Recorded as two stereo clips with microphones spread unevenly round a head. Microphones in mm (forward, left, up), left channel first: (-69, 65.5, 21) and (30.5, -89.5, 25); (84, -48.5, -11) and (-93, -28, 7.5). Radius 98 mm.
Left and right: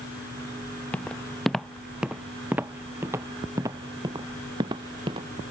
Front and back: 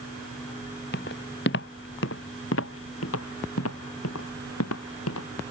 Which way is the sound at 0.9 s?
40° left.